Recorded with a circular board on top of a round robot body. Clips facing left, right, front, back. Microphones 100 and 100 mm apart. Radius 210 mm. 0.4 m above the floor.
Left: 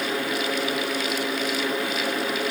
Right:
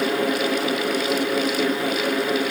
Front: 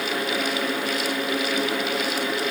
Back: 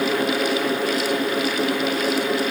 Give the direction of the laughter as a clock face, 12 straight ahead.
No laughter in this recording.